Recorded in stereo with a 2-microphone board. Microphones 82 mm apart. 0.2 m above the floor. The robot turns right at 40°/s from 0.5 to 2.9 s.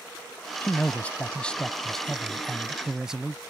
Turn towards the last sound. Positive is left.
turn(degrees=-5)  # may be behind; listen again after turning